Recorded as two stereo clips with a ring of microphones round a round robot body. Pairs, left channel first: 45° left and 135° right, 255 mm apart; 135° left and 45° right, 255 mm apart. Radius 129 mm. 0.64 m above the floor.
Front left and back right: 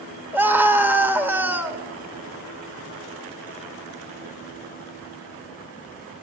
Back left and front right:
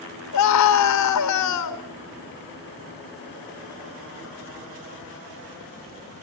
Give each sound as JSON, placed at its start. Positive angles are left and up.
{"t": 0.3, "sound": "a scream", "azimuth_deg": 145, "distance_m": 2.5}